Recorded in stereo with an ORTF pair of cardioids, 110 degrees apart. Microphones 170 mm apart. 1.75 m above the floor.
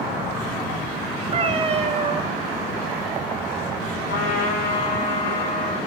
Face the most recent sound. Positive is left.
turn(degrees=60)